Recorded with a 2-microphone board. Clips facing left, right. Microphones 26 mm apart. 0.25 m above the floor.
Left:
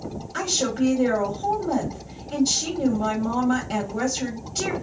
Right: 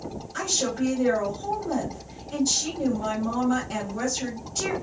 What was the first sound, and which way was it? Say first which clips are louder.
A woman speaking: left 3 dB; 25° left (ahead or behind).